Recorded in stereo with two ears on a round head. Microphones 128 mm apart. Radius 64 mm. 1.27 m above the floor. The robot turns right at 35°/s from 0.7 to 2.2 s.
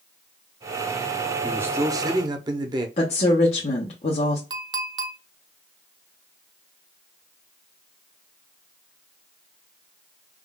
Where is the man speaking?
15° right (ahead or behind), 0.6 m; by 2.9 s 30° right (ahead or behind), 0.6 m.